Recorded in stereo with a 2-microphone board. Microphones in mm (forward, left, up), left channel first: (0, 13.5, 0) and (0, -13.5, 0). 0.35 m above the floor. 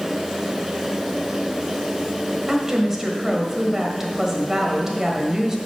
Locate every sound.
2.5 s a woman speaking: 15° right (ahead or behind), 1.6 m